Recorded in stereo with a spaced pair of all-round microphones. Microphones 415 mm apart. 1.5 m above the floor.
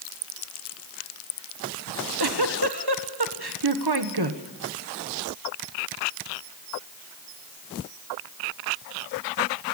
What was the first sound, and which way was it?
A giggle, 65° right (ahead or behind).